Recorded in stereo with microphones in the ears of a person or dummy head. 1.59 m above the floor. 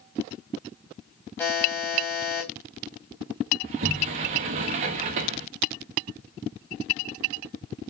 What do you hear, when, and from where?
1.4 s a buzzer: 10° left (ahead or behind), 2.5 m
3.6 s a sliding door: 35° right (ahead or behind), 1.0 m